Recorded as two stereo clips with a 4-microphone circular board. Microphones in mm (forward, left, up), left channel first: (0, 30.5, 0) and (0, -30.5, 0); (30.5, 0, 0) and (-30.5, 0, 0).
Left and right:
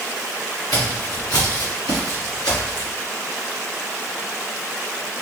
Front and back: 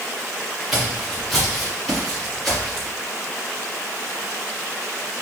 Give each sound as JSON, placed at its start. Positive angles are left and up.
{"t": 0.7, "sound": "footsteps", "azimuth_deg": 95, "distance_m": 3.0}